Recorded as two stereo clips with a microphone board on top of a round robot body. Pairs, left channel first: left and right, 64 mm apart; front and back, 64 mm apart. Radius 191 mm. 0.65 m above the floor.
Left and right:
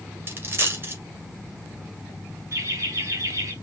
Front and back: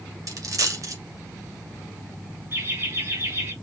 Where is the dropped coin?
145° right, 2.0 m.